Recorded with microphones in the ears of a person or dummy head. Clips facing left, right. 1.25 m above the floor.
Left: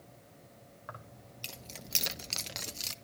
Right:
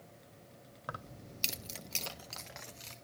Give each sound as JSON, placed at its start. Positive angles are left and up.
{"t": 0.9, "sound": "keys jangling", "side_deg": -55, "distance_m": 1.1}